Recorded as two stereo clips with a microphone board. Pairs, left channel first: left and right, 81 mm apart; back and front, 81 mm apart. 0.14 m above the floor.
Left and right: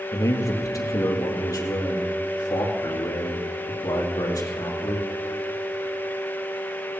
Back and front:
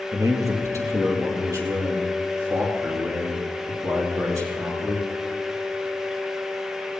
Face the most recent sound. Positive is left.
turn(degrees=50)